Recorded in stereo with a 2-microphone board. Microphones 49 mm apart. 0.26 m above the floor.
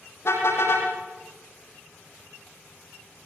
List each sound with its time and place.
0.2 s a car horn: 65° left (ahead or behind), 6.5 m